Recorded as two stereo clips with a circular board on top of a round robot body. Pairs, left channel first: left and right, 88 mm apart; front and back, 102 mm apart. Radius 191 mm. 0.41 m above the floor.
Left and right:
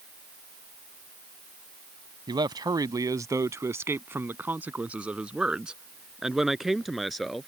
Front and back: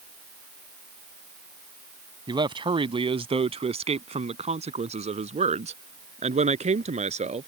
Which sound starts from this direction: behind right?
A man speaking, at 2.3 s.